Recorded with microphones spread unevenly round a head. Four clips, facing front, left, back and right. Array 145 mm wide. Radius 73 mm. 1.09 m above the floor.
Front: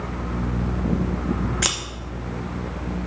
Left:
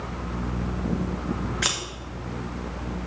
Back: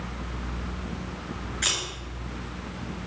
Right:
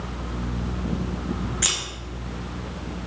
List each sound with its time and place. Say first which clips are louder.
1.6 s scissors: left 2 dB, front 5 dB; 15° left, 1.8 m